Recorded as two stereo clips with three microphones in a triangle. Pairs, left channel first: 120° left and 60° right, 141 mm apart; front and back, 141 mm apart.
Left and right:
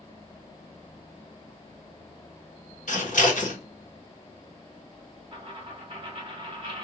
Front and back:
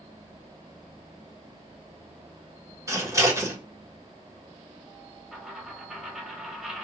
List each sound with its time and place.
2.9 s scissors: 115° left, 0.9 m
5.3 s a dropped coin: 100° right, 0.9 m